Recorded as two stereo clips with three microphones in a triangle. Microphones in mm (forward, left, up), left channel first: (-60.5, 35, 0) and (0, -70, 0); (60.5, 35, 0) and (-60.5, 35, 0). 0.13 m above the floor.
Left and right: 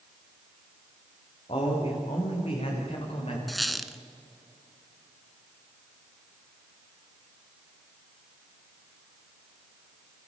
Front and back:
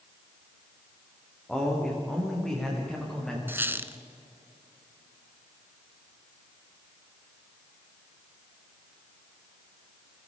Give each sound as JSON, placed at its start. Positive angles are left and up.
{"t": 1.5, "sound": "a man speaking", "azimuth_deg": 85, "distance_m": 9.0}
{"t": 3.5, "sound": "a squeak", "azimuth_deg": -150, "distance_m": 1.0}